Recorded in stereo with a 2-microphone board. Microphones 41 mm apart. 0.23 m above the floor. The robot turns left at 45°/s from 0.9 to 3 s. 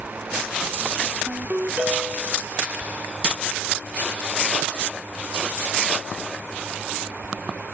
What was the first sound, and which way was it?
A ringtone, 115° right.